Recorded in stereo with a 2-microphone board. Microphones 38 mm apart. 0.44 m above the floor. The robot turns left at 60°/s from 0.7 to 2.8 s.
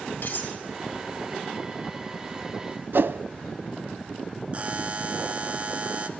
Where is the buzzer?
35° right (ahead or behind), 1.0 m.